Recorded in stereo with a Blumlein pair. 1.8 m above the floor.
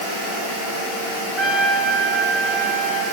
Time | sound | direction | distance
1.4 | a trumpet | 5° left | 6 m